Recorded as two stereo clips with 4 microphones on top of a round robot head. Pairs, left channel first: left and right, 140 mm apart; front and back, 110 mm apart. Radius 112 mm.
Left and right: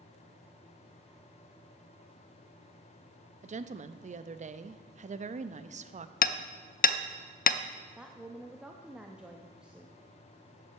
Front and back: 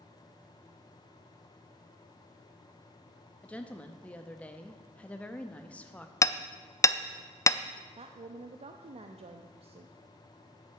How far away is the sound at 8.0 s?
About 0.7 m.